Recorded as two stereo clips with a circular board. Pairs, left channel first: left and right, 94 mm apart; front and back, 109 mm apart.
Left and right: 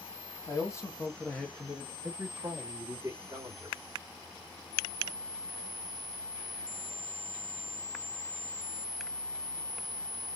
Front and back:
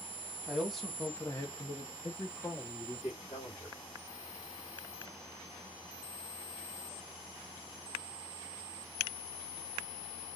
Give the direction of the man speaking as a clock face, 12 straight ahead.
9 o'clock.